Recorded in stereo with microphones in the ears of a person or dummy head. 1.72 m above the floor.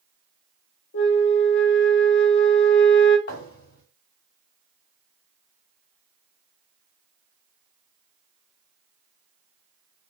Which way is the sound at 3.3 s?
60° left (ahead or behind).